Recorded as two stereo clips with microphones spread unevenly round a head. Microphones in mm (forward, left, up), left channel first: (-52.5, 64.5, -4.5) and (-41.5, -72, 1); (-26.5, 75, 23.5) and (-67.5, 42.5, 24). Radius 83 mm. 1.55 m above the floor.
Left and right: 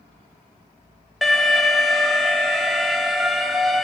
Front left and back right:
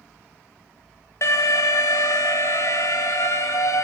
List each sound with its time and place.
1.2 s an alarm: 5° left, 1.1 m